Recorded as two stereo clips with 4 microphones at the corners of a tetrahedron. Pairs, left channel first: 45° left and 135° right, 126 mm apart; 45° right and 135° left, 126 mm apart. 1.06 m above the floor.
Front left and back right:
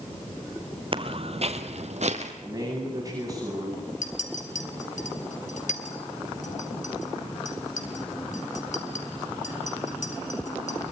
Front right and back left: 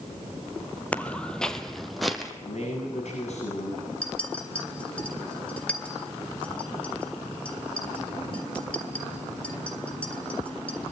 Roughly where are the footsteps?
Behind right.